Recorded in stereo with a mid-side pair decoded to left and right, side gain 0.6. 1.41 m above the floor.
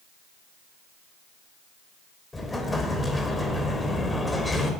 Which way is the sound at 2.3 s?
15° left.